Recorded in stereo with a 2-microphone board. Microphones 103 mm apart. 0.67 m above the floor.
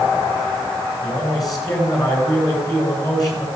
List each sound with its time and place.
1.0 s a man speaking: 35° left (ahead or behind), 9.5 m